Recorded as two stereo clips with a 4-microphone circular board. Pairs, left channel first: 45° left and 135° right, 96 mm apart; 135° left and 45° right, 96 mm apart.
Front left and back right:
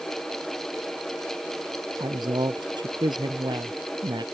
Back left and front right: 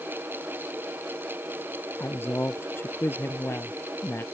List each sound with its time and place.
2.0 s a woman speaking: 160° right